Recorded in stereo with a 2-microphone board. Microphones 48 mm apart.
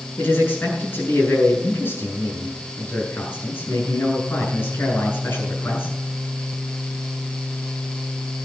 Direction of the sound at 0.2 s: 45° left (ahead or behind).